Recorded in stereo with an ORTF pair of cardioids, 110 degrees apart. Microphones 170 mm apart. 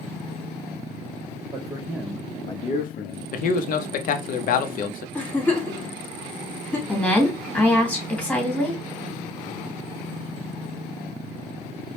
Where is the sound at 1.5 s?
25° right, 0.9 m; by 3.2 s 70° left, 0.8 m.